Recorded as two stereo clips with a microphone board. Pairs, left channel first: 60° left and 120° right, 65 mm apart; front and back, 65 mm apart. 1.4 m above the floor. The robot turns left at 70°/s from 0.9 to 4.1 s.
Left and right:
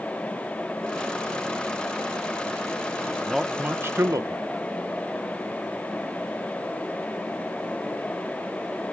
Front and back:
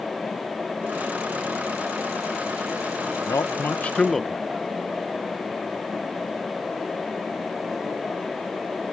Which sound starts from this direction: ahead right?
A man speaking, at 3.3 s.